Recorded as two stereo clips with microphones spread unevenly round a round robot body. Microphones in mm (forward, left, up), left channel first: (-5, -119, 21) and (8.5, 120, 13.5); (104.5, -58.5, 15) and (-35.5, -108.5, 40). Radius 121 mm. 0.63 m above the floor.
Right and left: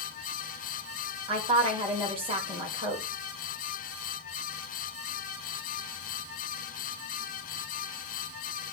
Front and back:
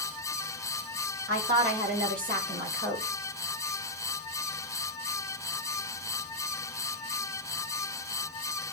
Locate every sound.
1.3 s a woman speaking: 155° left, 2 m